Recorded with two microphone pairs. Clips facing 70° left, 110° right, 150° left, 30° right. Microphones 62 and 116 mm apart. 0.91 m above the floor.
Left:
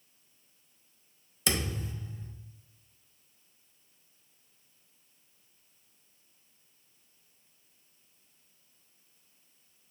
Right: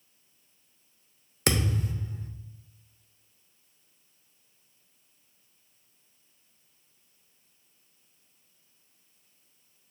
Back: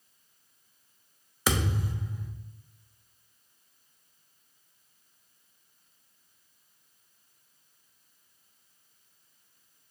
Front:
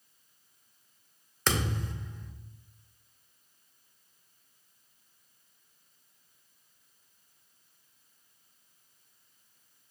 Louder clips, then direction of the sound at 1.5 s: Right 5 dB, back 2 dB; 125° right.